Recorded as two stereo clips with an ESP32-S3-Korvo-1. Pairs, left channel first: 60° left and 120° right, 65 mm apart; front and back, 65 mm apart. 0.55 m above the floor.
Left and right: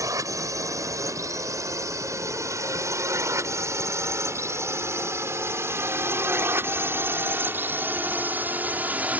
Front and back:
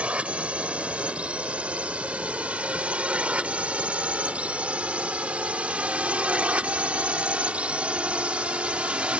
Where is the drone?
110° right; by 9.2 s 135° right.